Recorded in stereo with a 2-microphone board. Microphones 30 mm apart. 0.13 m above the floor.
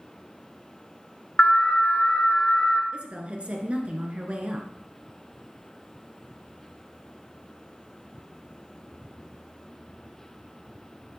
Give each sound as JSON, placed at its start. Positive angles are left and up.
{"t": 1.4, "sound": "an alarm", "side_deg": 40, "distance_m": 1.1}
{"t": 2.9, "sound": "a woman speaking", "side_deg": -40, "distance_m": 1.5}